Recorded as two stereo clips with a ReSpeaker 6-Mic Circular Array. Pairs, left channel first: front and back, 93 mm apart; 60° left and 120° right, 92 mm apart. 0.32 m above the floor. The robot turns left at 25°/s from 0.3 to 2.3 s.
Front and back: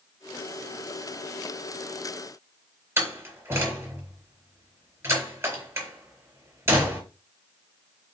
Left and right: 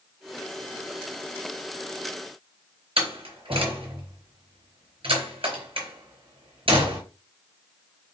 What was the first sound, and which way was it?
A door slam, 120° right.